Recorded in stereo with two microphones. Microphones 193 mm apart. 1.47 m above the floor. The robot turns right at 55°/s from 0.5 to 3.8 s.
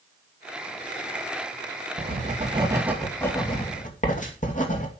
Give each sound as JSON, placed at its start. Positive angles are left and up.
{"t": 2.0, "sound": "writing", "azimuth_deg": -60, "distance_m": 2.5}